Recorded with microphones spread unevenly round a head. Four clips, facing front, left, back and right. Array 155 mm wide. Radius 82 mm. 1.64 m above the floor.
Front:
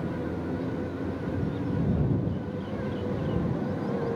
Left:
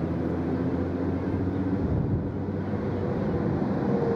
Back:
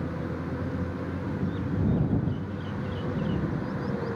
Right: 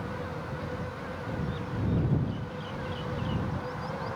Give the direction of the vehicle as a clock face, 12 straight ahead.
9 o'clock.